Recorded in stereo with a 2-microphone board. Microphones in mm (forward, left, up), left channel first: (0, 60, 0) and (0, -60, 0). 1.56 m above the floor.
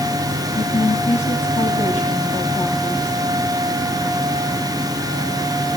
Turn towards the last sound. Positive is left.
turn(degrees=80)